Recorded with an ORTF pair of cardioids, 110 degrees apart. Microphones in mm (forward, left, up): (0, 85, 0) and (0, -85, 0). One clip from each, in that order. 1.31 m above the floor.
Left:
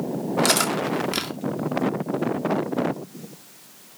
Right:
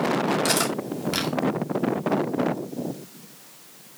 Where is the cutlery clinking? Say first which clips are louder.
Left 3 dB; 25° left, 2 m.